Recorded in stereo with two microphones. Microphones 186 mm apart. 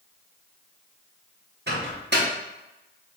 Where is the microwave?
65° right (ahead or behind), 0.9 m.